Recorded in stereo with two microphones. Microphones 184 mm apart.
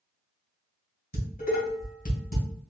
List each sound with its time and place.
1.1 s dishes clattering: 50° left (ahead or behind), 2.5 m